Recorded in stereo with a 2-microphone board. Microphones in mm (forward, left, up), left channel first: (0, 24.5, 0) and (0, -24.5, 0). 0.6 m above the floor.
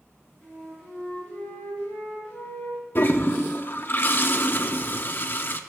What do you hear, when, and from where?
0.4 s a flute: 15° left (ahead or behind), 4.5 m
3.0 s a toilet flushing: 45° left (ahead or behind), 0.7 m